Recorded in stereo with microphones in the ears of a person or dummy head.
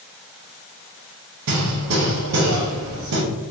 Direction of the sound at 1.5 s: 70° right (ahead or behind).